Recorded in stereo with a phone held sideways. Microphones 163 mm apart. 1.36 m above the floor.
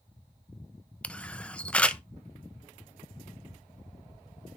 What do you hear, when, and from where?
1.0 s a camera shutter: 10° left (ahead or behind), 0.5 m